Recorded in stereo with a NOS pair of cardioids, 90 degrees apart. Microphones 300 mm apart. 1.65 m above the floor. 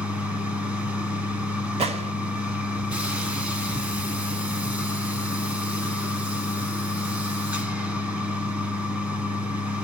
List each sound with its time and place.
0.0 s a machine running: 5° right, 0.8 m
1.8 s a gunshot: 20° right, 0.8 m